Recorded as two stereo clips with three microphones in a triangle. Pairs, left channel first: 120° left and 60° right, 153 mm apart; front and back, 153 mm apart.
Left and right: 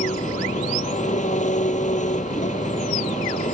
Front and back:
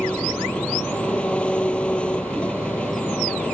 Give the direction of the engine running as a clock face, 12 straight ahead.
9 o'clock.